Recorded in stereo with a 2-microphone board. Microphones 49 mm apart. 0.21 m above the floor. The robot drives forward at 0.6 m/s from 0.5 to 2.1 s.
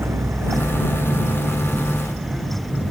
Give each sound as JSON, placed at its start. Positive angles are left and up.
{"t": 0.0, "sound": "a vehicle", "side_deg": -60}